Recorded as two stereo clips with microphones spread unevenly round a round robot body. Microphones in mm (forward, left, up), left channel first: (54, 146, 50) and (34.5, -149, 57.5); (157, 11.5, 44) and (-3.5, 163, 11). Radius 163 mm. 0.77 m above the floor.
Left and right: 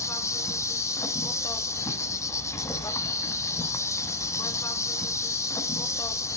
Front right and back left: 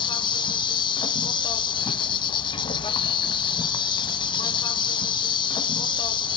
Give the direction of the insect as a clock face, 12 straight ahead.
12 o'clock.